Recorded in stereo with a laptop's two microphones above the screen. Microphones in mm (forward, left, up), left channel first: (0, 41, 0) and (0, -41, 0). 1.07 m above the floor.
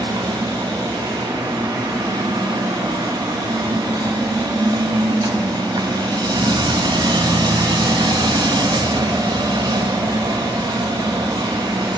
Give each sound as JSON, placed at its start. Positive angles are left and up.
{"t": 0.0, "sound": "a machine running", "side_deg": -60, "distance_m": 0.9}